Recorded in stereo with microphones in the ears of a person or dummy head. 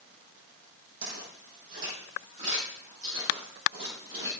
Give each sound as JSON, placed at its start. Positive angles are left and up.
{"t": 1.0, "sound": "footsteps", "side_deg": -55, "distance_m": 4.5}